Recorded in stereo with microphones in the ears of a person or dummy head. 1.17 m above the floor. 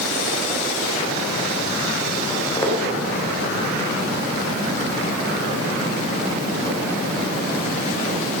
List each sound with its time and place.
2.3 s footsteps: 10° left (ahead or behind), 4.5 m; by 8.4 s 30° left (ahead or behind), 7 m